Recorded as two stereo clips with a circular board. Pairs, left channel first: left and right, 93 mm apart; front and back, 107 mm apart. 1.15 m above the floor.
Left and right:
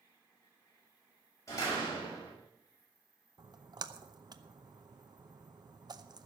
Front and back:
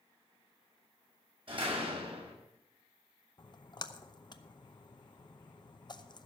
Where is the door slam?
145° left, 6 m.